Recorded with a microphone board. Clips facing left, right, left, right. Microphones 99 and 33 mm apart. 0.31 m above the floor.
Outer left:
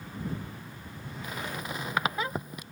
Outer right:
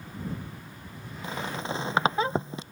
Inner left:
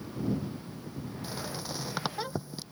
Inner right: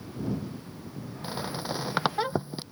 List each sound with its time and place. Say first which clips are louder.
1.2 s a squeak: outer right 4 dB, inner right 7 dB; 30° right (ahead or behind)